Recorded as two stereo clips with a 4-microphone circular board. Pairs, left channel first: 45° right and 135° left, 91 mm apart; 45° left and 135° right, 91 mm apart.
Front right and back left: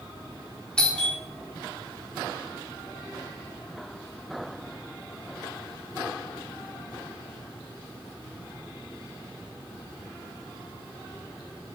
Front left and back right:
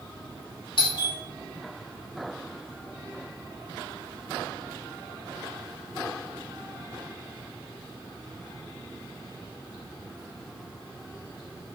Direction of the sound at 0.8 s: 35° left.